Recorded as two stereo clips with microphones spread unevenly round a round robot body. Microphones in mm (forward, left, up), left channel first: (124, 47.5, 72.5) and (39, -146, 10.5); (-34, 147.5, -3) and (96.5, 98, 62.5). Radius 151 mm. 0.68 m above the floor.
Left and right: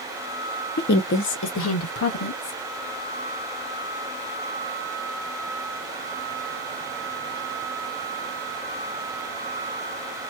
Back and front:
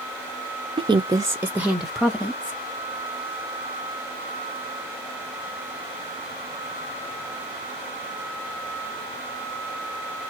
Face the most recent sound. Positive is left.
turn(degrees=95)